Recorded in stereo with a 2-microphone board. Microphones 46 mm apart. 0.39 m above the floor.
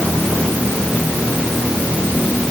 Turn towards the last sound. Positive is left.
No sound to turn to.